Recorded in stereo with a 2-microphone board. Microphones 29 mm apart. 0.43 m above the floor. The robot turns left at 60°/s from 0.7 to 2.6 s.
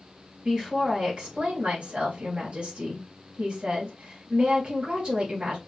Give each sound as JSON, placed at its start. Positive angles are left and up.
{"t": 0.5, "sound": "a woman speaking", "azimuth_deg": -25, "distance_m": 3.0}